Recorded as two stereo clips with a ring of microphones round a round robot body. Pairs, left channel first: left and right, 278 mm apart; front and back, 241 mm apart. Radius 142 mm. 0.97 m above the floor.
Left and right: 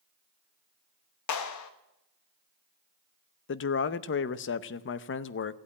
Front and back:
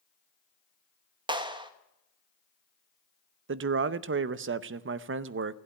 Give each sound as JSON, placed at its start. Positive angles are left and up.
{"t": 1.3, "sound": "a clap", "azimuth_deg": 110, "distance_m": 1.4}
{"t": 3.5, "sound": "a man speaking", "azimuth_deg": 140, "distance_m": 0.7}